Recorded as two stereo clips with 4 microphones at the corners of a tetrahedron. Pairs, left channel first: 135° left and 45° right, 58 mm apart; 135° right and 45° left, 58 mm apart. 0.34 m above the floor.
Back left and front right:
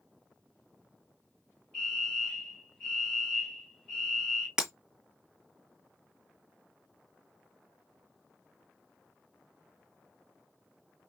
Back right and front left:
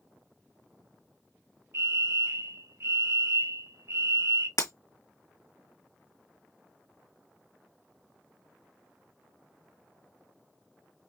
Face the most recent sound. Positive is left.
turn(degrees=-125)